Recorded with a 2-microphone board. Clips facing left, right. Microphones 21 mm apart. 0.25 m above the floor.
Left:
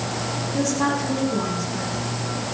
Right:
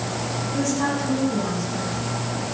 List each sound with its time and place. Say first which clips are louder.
0.5 s a woman speaking: left 1 dB; 15° left (ahead or behind), 7 m